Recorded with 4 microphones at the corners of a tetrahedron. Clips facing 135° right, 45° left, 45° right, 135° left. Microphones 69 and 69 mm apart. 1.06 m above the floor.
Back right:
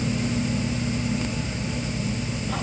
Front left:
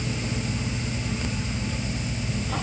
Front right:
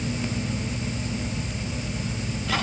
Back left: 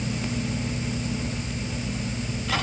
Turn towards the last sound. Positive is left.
No sound to turn to.